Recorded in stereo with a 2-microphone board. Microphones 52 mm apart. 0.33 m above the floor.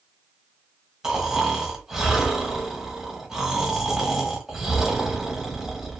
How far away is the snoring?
About 1.1 m.